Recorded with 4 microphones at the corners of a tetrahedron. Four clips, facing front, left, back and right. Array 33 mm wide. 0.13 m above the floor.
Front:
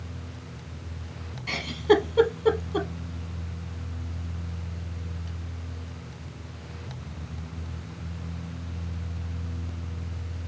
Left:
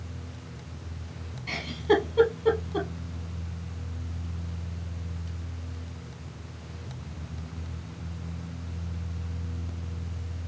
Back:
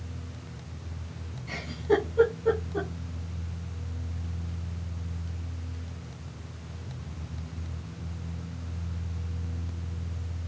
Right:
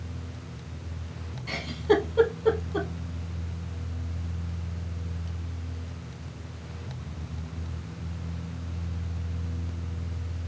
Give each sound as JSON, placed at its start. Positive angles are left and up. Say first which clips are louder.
{"t": 1.5, "sound": "a giggle", "louder": "even, front 5 dB", "azimuth_deg": 5, "distance_m": 1.1}